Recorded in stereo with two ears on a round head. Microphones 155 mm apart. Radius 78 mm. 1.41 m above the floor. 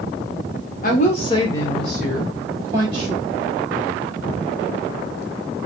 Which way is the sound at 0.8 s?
50° left (ahead or behind).